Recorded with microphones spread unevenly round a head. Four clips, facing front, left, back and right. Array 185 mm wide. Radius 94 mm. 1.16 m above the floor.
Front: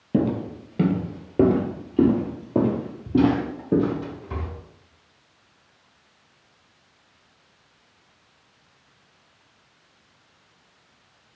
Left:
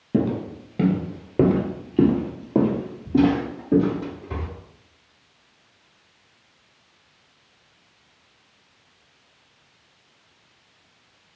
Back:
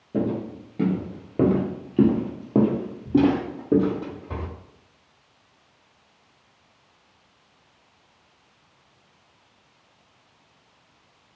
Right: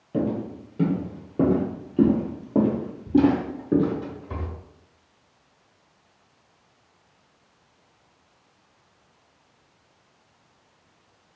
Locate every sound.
0.1 s footsteps: 45° left, 1.3 m; by 4.5 s 160° right, 2 m